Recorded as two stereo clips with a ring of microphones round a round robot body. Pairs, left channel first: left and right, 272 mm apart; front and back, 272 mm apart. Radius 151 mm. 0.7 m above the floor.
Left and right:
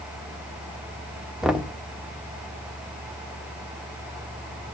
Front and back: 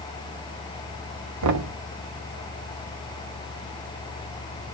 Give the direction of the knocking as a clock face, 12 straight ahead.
6 o'clock.